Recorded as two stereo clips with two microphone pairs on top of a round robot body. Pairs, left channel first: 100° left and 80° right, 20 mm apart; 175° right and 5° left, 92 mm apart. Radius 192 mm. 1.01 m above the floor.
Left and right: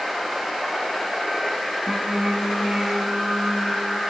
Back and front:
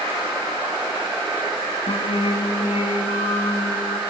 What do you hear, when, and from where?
1.9 s singing: 145° right, 3 m